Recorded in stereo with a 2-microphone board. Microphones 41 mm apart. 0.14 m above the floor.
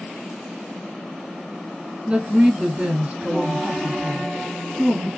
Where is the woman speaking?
20° right (ahead or behind), 1.3 m.